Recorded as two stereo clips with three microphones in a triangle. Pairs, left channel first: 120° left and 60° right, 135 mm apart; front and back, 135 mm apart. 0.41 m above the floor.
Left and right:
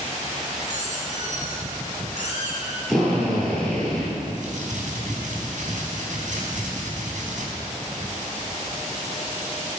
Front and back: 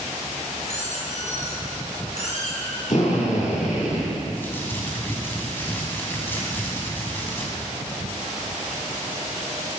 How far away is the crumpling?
About 4 m.